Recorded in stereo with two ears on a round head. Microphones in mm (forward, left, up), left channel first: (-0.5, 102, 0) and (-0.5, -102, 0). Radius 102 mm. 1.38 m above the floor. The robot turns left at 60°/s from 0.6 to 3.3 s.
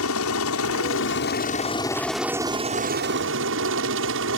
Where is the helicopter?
95° left; by 4.4 s 70° right.